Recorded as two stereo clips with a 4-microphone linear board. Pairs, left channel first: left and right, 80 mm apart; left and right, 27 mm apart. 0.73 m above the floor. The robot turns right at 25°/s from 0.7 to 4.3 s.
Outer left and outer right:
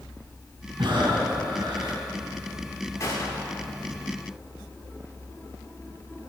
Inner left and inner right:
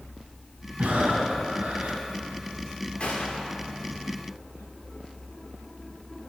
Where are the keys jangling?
No keys jangling in this recording.